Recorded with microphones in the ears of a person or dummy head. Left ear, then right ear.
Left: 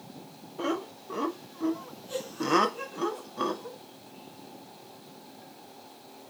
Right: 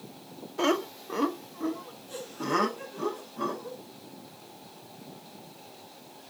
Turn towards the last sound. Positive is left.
turn(degrees=55)  # may be behind; listen again after turning